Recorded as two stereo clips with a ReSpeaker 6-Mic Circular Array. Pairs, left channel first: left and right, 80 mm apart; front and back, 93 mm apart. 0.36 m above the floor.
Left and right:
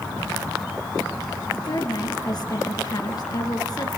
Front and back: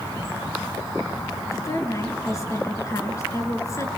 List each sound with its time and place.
1.5 s a woman speaking: 55° left, 4.5 m